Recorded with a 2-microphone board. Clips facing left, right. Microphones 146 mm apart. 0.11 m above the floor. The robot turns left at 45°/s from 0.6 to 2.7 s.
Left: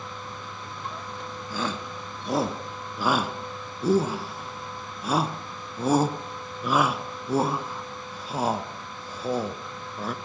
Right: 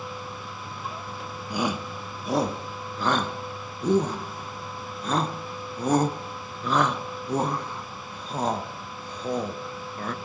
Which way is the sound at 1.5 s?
15° right (ahead or behind).